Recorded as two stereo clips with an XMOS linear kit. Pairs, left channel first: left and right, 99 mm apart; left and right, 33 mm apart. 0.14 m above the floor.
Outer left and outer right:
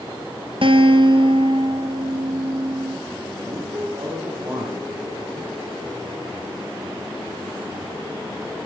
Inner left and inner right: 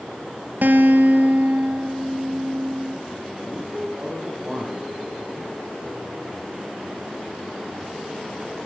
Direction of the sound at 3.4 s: 35° right (ahead or behind).